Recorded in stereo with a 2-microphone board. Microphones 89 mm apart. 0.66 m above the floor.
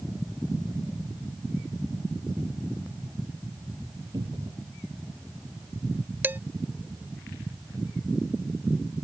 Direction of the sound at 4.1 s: 90° right.